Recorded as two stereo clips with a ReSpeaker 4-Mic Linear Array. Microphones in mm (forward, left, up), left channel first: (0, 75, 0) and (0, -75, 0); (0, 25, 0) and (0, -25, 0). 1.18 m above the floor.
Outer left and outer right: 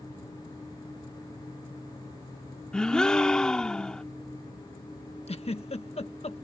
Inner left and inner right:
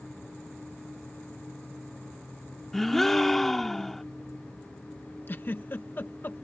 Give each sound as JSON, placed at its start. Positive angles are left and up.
{"t": 2.7, "sound": "a gasp", "side_deg": 5}
{"t": 5.3, "sound": "a giggle", "side_deg": 45}